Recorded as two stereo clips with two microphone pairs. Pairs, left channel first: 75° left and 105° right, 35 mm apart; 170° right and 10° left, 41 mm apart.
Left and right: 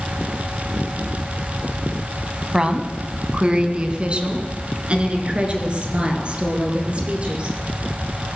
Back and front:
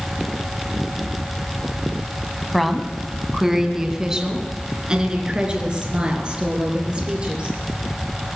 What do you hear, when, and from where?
2.5 s a woman speaking: 80° right, 1.1 m; by 7.6 s 50° right, 3.5 m